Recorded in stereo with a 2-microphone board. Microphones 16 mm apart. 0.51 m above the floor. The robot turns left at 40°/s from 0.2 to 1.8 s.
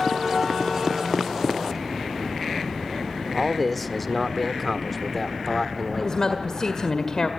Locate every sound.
3.3 s a man speaking: 10° left (ahead or behind), 1.3 m
6.0 s a woman speaking: 45° left (ahead or behind), 1.7 m